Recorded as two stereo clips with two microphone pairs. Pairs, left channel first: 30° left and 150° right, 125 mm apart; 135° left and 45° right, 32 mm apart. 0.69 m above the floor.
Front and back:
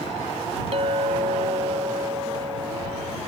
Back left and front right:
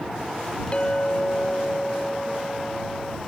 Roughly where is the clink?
Behind.